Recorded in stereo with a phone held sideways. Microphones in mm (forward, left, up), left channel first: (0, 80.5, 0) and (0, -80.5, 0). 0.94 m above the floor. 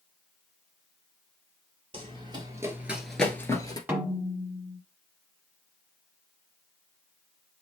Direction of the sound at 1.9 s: 35° right (ahead or behind).